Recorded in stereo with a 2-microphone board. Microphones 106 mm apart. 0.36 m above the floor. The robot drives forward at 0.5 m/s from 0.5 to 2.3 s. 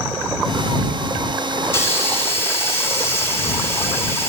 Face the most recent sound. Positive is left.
turn(degrees=25)  # may be behind; listen again after turning